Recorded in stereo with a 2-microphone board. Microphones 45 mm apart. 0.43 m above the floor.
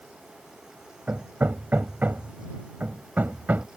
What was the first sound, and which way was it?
Hammering, 45° right (ahead or behind).